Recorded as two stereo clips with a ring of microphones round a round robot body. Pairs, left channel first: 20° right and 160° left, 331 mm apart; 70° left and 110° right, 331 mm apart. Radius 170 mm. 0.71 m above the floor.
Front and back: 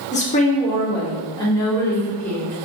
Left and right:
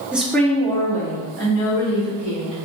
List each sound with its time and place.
0.1 s a woman speaking: 35° right, 1.1 m; by 2.6 s 60° left, 1.8 m